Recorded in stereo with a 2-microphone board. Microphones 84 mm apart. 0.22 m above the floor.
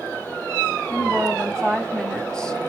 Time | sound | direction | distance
0.9 | a woman speaking | 10° left (ahead or behind) | 1.5 m